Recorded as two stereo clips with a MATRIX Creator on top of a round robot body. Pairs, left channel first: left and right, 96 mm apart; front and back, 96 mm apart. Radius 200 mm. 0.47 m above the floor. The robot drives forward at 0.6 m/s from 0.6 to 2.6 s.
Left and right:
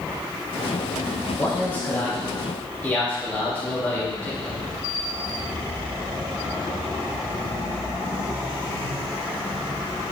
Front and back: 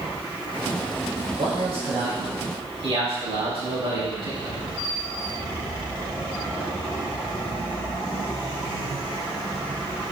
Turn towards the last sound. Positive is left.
turn(degrees=165)